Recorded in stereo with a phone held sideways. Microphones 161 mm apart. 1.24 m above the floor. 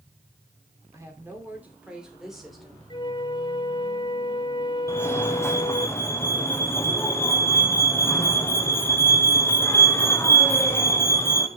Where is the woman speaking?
20° right (ahead or behind), 3 m; by 2.8 s 5° left (ahead or behind), 3.5 m.